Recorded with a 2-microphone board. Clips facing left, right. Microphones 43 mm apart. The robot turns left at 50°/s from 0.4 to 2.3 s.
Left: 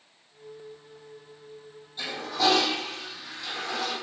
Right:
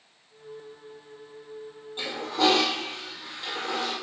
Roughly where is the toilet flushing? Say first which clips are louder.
Right 2 dB; right.